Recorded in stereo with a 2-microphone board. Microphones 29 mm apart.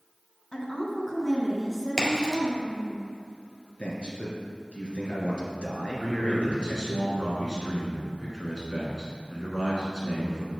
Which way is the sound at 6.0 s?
30° right (ahead or behind).